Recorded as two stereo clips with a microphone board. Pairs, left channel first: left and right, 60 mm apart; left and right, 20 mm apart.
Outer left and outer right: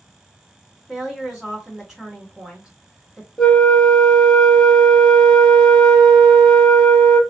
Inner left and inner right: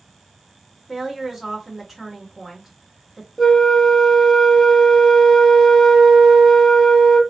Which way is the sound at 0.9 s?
10° right (ahead or behind).